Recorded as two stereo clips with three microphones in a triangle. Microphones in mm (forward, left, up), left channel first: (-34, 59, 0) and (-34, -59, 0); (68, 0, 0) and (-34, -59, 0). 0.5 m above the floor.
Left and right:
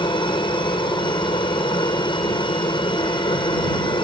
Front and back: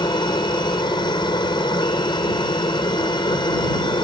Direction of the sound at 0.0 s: 65° left.